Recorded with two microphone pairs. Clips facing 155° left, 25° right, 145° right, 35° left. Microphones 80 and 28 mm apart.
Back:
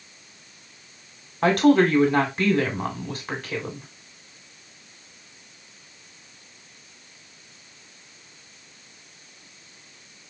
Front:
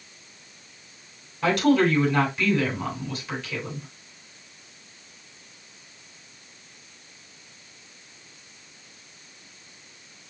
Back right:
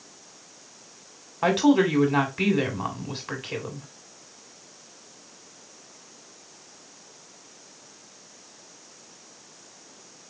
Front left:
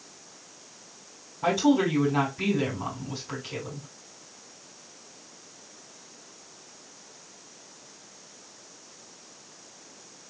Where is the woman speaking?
160° right, 1.9 m.